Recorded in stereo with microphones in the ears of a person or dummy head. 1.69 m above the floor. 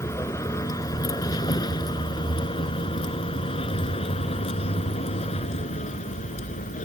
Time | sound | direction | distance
0.0 | a vehicle | 15° left (ahead or behind) | ?